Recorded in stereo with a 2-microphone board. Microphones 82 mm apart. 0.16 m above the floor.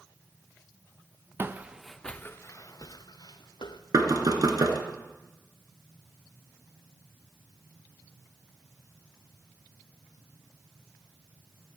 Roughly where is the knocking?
Right.